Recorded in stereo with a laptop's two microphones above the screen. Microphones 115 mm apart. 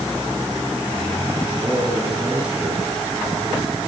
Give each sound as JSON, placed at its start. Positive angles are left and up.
{"t": 1.6, "sound": "a man speaking", "side_deg": -10, "distance_m": 10.0}